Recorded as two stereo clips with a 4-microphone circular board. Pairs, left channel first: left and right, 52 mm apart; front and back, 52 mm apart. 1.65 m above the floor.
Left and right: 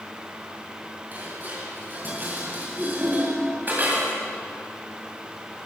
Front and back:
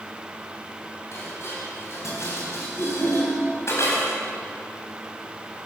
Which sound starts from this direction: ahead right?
Dishes clattering, at 1.1 s.